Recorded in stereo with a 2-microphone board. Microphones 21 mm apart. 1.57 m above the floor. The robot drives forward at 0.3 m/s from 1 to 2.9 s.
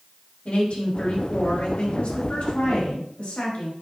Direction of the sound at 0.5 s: 85° left.